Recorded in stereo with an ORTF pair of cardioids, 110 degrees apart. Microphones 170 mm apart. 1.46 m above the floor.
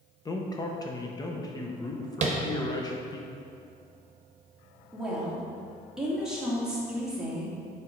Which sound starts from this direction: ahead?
A woman speaking, at 4.9 s.